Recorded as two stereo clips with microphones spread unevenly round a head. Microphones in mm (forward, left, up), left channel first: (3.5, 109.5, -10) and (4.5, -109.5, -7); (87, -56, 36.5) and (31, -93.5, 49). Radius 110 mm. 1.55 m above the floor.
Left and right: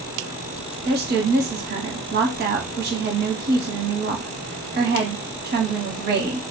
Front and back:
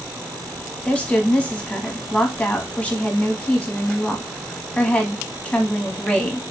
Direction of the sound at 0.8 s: 45° right.